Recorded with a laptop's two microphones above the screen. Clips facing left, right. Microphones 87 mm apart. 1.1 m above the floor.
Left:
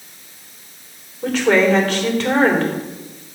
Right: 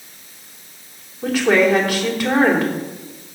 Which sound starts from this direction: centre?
A woman speaking, at 1.2 s.